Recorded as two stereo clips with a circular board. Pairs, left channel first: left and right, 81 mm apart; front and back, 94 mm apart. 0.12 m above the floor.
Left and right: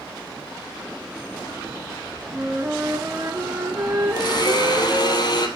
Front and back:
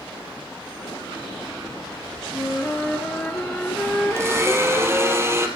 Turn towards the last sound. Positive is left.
turn(degrees=120)